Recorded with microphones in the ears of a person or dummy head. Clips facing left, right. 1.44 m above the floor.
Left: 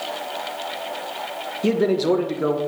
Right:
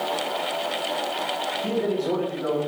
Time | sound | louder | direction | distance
1.6 | a man speaking | left 7 dB | 75° left (ahead or behind) | 1.8 m